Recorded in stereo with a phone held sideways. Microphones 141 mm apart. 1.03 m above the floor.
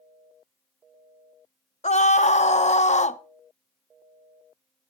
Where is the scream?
50° left (ahead or behind), 0.7 m.